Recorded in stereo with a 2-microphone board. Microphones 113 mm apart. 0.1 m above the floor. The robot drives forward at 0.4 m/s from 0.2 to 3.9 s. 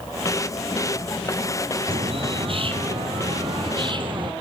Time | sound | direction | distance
1.9 | a bird | 55° right (ahead or behind) | 2 m